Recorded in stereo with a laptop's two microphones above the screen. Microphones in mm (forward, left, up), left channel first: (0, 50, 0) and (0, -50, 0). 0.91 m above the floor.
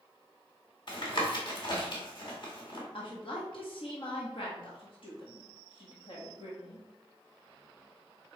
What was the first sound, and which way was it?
Tapping, 55° left (ahead or behind).